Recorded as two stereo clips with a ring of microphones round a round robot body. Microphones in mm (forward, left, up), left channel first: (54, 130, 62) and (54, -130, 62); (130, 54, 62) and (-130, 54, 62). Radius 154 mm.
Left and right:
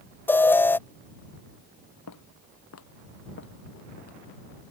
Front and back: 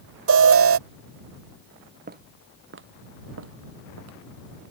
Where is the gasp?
I don't hear a gasp.